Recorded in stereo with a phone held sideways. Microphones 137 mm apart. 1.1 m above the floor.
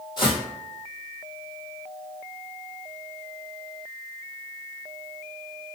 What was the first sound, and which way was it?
Footsteps, 30° left (ahead or behind).